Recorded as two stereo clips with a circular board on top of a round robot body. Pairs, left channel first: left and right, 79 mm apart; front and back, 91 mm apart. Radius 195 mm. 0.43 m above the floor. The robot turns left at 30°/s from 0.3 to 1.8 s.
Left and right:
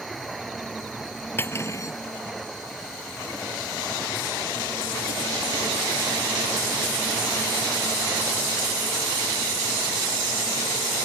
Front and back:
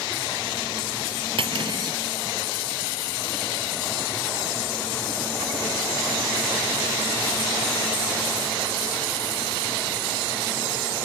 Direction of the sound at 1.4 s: 155° left.